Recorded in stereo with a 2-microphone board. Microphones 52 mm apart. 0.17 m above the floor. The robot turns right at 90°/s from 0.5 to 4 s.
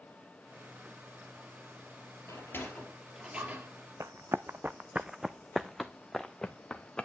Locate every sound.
2.3 s a sliding door: 65° left (ahead or behind), 3 m; by 3.7 s 50° right (ahead or behind), 3 m
4.0 s running footsteps: 65° right (ahead or behind), 0.6 m; by 7.0 s 20° left (ahead or behind), 1.4 m